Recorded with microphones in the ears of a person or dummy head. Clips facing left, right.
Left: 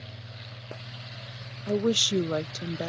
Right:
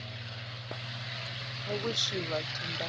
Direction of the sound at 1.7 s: 45° left (ahead or behind).